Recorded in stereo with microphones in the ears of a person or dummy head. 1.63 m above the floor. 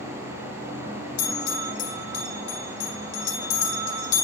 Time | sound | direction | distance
1.2 | a bell | 80° left | 2.5 m